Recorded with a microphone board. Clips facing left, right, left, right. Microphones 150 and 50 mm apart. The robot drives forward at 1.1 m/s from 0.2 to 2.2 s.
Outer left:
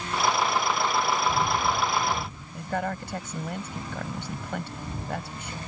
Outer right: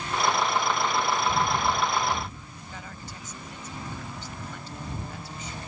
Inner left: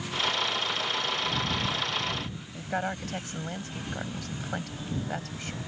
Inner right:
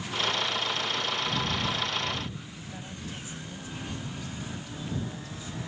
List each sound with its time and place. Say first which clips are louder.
2.5 s a woman speaking: outer left 13 dB, inner left 10 dB; 65° left (ahead or behind)